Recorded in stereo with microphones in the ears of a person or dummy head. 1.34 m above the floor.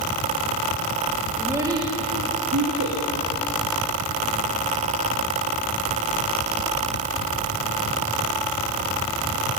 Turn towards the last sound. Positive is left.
turn(degrees=-75)  # may be behind; listen again after turning